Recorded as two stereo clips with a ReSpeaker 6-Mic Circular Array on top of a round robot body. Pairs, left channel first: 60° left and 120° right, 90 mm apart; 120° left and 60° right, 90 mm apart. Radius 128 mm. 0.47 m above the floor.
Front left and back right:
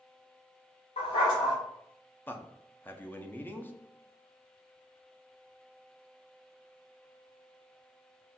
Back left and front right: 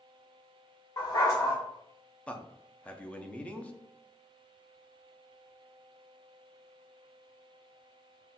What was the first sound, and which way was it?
A dog barking, 65° left.